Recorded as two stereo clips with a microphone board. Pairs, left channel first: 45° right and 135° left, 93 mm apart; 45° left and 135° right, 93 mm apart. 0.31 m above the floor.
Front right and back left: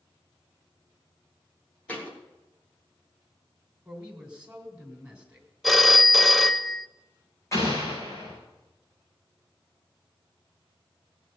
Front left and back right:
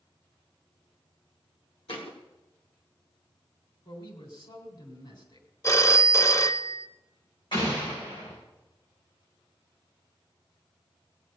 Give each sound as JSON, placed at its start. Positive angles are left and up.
{"t": 1.9, "sound": "a thud", "azimuth_deg": 30, "distance_m": 3.5}
{"t": 3.9, "sound": "a man speaking", "azimuth_deg": 60, "distance_m": 3.0}
{"t": 5.6, "sound": "a phone ringing", "azimuth_deg": 45, "distance_m": 0.6}
{"t": 7.5, "sound": "an explosion", "azimuth_deg": 15, "distance_m": 9.0}